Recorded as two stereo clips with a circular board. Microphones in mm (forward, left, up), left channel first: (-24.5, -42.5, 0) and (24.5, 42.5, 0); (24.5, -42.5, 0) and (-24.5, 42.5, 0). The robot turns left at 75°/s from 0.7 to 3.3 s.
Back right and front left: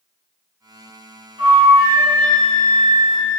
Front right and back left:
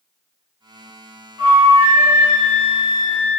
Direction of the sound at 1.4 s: 85° left.